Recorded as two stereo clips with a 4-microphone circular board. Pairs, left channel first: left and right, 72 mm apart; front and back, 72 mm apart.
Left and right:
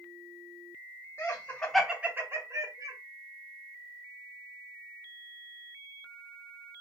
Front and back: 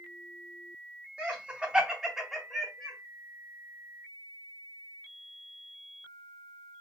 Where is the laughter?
115° left, 0.9 m; by 3.0 s 85° right, 1.2 m.